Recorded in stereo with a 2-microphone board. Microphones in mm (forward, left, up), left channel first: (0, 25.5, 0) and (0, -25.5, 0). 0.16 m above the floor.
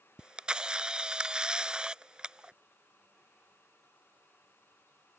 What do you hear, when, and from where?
0.2 s a camera shutter: 20° right (ahead or behind)